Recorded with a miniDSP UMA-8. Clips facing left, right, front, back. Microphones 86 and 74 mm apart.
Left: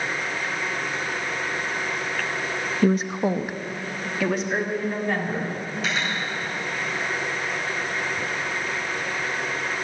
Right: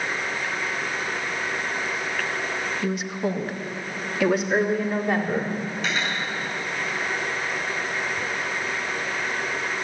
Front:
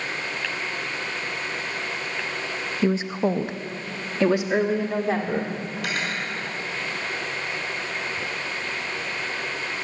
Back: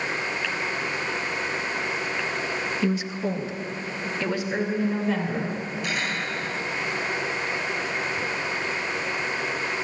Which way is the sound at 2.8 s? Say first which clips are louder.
Left 8 dB, front 6 dB; 60° left.